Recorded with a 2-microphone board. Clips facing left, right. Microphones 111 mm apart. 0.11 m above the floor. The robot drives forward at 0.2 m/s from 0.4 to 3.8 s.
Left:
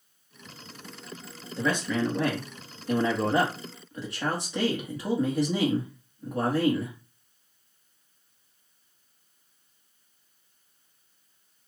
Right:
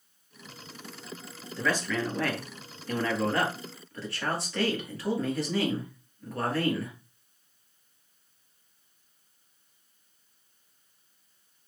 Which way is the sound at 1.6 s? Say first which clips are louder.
Left 2 dB; 25° left (ahead or behind).